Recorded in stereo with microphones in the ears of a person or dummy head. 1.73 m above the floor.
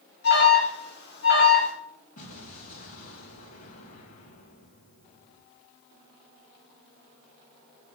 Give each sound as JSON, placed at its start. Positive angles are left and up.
{"t": 0.2, "sound": "an alarm", "side_deg": 60, "distance_m": 4.5}
{"t": 2.2, "sound": "an explosion", "side_deg": 40, "distance_m": 2.5}